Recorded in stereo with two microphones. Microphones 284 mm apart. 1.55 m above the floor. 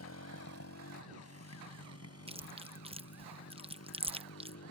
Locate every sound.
0.0 s a motorcycle: 60° left (ahead or behind)
2.3 s chewing: 20° right (ahead or behind)